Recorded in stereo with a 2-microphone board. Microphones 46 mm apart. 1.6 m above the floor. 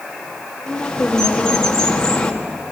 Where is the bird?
15° left (ahead or behind), 1.6 m.